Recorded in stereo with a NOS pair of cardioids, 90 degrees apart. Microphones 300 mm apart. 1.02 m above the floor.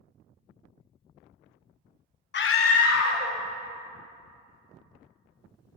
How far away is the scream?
About 0.6 m.